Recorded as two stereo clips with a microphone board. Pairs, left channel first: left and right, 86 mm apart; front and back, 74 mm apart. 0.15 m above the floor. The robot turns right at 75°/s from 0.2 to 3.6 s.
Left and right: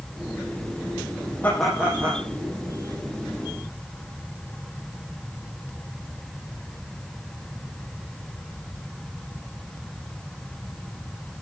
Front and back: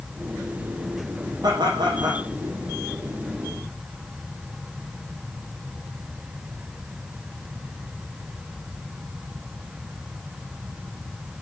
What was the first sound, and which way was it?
Laughter, 150° left.